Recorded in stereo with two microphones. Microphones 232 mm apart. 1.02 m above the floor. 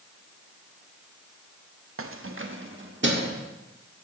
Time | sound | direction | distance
2.0 | keys jangling | 65° right (ahead or behind) | 0.6 m